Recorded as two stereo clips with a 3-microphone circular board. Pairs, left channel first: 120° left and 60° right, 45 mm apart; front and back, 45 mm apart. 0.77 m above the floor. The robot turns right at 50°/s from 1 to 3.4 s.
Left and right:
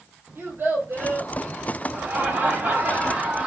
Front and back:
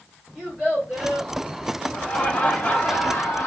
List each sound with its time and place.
0.3 s a child speaking: 95° right, 2.5 m; by 1.3 s 80° right, 2.5 m
1.9 s laughter: 70° right, 1.0 m; by 3.5 s 5° left, 1.0 m